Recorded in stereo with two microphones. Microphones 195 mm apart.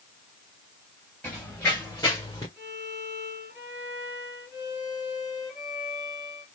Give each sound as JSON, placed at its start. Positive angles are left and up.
{"t": 1.2, "sound": "running footsteps", "side_deg": 10, "distance_m": 2.5}
{"t": 2.6, "sound": "a violin", "side_deg": -5, "distance_m": 2.0}